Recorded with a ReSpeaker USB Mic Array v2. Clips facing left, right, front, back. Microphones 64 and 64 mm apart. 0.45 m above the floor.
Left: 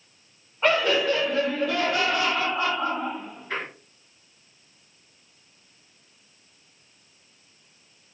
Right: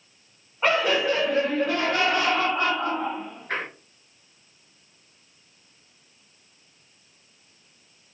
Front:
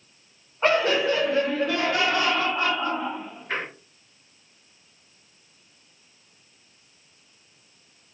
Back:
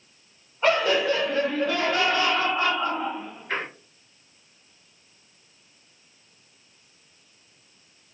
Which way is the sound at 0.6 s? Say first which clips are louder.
Even, even; 10° right.